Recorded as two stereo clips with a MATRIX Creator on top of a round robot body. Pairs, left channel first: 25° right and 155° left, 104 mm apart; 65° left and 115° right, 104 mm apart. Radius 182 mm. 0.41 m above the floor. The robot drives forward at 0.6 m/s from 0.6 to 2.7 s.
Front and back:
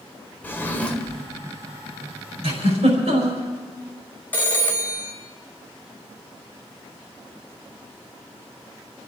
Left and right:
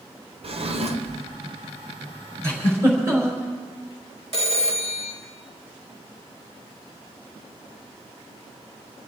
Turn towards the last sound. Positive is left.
turn(degrees=-95)